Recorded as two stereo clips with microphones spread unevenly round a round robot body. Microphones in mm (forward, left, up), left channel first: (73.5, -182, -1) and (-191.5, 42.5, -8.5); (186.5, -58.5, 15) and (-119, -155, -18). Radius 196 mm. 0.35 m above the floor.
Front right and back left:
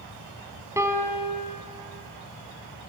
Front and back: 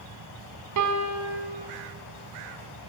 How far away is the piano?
About 2.5 m.